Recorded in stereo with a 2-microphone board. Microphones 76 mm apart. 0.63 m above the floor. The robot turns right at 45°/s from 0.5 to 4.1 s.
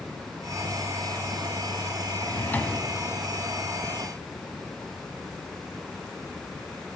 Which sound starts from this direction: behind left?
A drawer, at 2.2 s.